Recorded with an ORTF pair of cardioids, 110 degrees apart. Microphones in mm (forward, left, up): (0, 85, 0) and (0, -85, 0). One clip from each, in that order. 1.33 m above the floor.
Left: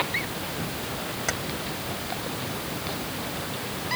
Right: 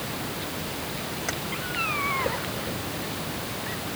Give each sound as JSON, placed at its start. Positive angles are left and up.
{"t": 1.3, "sound": "keys jangling", "azimuth_deg": 20}